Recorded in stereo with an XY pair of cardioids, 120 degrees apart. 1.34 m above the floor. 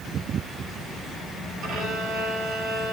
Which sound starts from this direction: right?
A violin, at 1.6 s.